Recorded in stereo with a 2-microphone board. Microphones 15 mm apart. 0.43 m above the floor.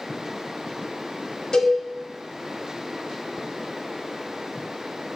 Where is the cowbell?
55° left (ahead or behind), 1.9 m.